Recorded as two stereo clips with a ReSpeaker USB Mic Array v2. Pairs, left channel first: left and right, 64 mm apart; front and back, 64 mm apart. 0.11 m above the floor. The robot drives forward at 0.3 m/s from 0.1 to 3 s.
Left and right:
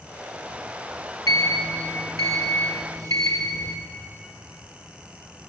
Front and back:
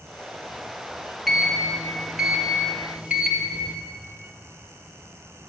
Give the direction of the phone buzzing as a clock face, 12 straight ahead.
I don't hear a phone buzzing.